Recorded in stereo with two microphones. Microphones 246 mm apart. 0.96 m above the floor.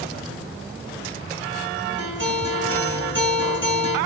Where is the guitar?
50° right (ahead or behind), 5 m.